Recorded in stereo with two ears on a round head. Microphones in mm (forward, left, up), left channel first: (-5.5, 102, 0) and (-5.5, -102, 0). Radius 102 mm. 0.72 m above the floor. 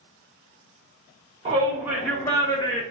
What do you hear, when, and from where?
1.4 s a shout: 25° right (ahead or behind), 0.7 m; by 2.8 s 25° left (ahead or behind), 0.9 m